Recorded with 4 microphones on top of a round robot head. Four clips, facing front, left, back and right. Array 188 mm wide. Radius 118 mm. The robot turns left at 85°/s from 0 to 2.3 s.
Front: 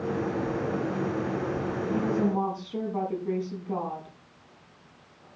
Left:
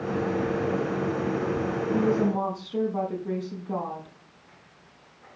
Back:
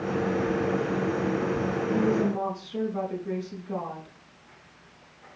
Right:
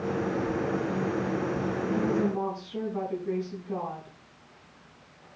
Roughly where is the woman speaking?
Left.